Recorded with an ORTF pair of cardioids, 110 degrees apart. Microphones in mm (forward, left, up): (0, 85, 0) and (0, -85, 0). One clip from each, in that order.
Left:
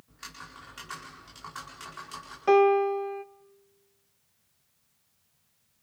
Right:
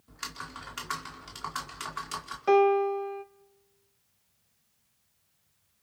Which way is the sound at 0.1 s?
55° right.